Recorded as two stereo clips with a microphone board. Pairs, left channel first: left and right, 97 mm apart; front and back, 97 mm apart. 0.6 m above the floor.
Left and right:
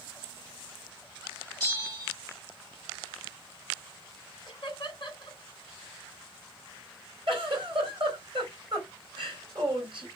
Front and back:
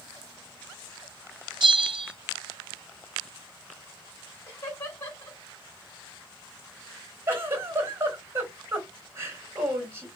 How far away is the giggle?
About 3.5 m.